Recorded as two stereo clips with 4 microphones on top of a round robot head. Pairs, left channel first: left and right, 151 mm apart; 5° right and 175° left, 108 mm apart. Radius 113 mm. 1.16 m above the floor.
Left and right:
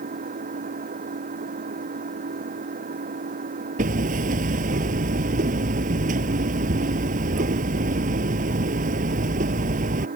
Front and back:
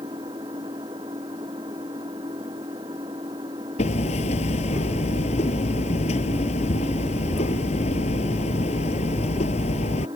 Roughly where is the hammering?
Ahead right.